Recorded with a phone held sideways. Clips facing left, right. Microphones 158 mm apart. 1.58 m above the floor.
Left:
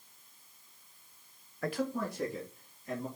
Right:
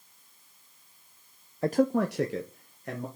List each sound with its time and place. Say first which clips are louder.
1.6 s a man speaking: right 9 dB; 25° right (ahead or behind), 0.5 m; by 3.1 s 70° right (ahead or behind), 2.0 m